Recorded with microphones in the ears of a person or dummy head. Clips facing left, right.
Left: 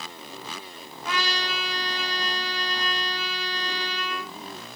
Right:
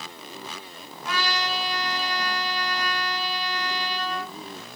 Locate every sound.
1.1 s a trumpet: 20° left (ahead or behind), 1.2 m